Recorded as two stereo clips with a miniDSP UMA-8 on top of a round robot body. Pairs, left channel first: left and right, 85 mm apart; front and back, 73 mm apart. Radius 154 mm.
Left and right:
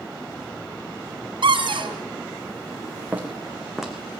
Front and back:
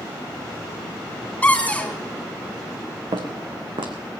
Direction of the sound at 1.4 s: 75° right.